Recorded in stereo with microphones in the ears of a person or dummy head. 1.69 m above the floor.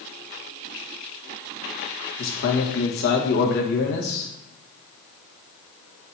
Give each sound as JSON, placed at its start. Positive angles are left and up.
{"t": 2.2, "sound": "a man speaking", "side_deg": 65, "distance_m": 1.3}